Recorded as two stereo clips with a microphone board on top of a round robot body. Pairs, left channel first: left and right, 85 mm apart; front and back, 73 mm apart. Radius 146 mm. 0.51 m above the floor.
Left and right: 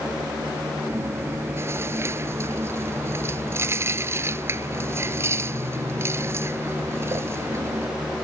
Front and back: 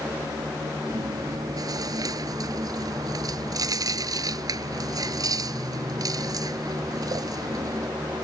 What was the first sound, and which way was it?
Chewing, 150° right.